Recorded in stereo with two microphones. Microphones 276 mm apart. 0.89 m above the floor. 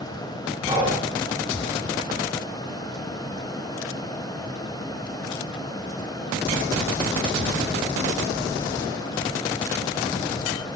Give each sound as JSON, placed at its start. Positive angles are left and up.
{"t": 0.7, "sound": "breathing", "side_deg": -15, "distance_m": 5.0}